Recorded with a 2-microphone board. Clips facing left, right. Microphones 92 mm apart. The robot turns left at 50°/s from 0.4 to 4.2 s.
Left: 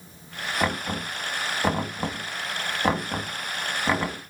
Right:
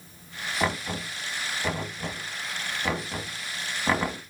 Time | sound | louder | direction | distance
0.6 | knocking | left 1 dB | 10° left (ahead or behind) | 1.9 m